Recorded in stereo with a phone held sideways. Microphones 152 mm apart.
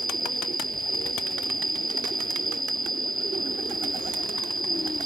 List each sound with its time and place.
0.0 s an insect: 25° right (ahead or behind)